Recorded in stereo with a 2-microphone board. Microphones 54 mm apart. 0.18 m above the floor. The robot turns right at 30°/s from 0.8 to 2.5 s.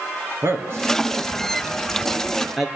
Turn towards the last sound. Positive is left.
turn(degrees=0)  # may be behind; listen again after turning